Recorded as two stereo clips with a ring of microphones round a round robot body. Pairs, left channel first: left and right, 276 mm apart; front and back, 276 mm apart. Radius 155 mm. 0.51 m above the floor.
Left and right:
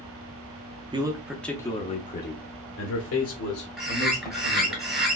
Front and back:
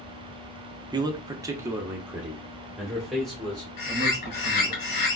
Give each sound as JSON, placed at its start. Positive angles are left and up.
{"t": 0.9, "sound": "a man speaking", "azimuth_deg": -130, "distance_m": 0.8}
{"t": 3.8, "sound": "a bird", "azimuth_deg": 0, "distance_m": 2.5}